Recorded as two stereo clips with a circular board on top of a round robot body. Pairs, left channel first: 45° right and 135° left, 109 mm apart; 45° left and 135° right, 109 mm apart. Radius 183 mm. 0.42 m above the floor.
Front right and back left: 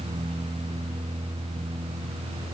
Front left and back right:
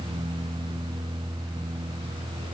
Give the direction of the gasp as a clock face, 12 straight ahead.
No gasp in this recording.